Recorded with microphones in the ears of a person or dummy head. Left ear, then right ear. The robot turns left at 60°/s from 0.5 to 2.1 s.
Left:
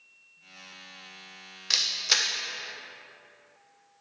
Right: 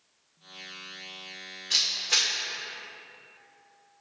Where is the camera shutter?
45° left (ahead or behind), 0.9 m; by 2.3 s 65° left (ahead or behind), 0.9 m.